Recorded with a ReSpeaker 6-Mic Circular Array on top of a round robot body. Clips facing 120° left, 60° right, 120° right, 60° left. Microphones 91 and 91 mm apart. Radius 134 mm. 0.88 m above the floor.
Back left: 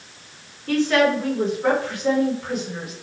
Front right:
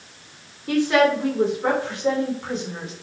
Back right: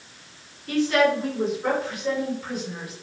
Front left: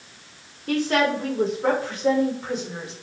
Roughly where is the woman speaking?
Ahead.